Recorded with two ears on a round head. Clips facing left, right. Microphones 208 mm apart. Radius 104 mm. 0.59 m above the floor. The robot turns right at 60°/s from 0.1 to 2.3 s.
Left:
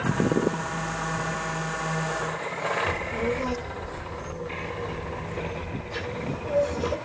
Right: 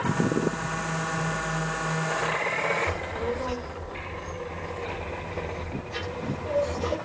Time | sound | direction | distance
2.9 | a child speaking | 10° left (ahead or behind) | 1.6 m